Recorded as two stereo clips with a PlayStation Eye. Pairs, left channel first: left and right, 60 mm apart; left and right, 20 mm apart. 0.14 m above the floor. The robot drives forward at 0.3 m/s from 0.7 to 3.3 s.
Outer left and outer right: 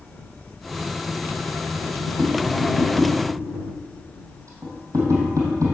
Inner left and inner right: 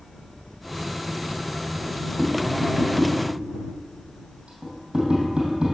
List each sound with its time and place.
2.2 s tapping: 75° right (ahead or behind), 3 m; by 5.7 s 70° right (ahead or behind), 3 m